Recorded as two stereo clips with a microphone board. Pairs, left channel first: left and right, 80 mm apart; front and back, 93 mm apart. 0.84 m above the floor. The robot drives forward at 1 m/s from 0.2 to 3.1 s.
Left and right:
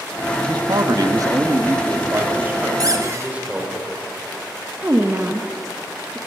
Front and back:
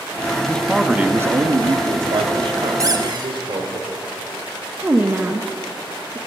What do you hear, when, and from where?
0.5 s a man speaking: 75° right, 1.0 m; by 3.8 s 160° right, 2.5 m
2.8 s a squeak: 130° right, 0.9 m; by 3.3 s 140° right, 1.1 m
4.8 s a woman speaking: 125° right, 0.9 m